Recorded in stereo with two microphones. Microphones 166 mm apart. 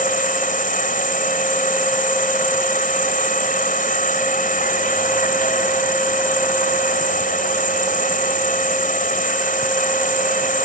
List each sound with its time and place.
0.0 s an insect: 55° left (ahead or behind)